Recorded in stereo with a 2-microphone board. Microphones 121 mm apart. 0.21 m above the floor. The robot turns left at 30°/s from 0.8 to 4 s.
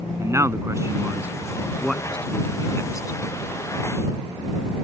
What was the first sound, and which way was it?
A man speaking, 25° right (ahead or behind).